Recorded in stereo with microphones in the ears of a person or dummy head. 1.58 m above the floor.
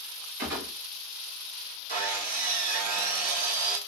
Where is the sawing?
45° right (ahead or behind), 1.6 m.